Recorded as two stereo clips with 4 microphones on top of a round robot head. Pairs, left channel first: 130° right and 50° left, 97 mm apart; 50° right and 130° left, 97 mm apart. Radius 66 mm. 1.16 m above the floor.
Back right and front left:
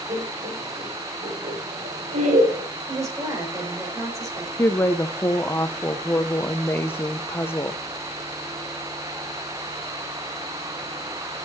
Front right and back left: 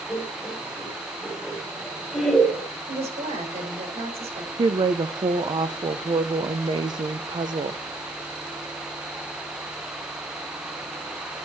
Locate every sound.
0.1 s laughter: 20° left, 4 m; by 2.6 s 45° left, 3.5 m
2.9 s a woman speaking: 110° left, 5 m
4.6 s a woman speaking: 165° left, 0.6 m